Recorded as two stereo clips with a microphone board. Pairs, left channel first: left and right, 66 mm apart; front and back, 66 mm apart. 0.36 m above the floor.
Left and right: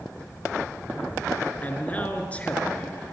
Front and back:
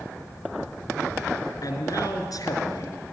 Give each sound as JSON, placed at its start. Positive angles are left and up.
{"t": 1.6, "sound": "a man speaking", "azimuth_deg": 25, "distance_m": 4.0}